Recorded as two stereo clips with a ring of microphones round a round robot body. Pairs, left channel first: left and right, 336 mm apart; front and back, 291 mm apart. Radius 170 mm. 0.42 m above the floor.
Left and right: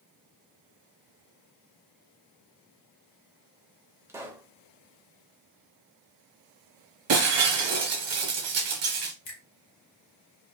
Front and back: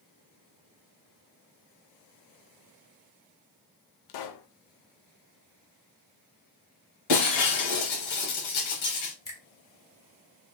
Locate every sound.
4.1 s a pop: 5° right, 0.5 m
7.1 s breaking glass: 40° right, 1.0 m
9.2 s a finger snap: 75° left, 1.9 m